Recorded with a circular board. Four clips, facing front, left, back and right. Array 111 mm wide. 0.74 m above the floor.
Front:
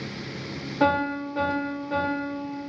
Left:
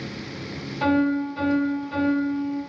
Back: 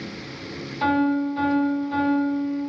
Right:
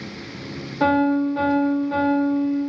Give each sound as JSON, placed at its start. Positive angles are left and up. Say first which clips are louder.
{"t": 0.8, "sound": "a piano", "louder": "right 3 dB, back 3 dB", "azimuth_deg": -35, "distance_m": 1.1}